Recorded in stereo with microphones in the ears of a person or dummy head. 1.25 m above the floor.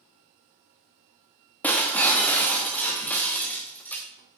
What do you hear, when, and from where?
1.6 s breaking glass: 5° left (ahead or behind), 1.1 m